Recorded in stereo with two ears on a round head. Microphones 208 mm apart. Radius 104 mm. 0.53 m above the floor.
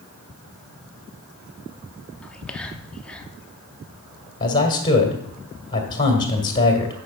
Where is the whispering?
5° left (ahead or behind), 0.9 m.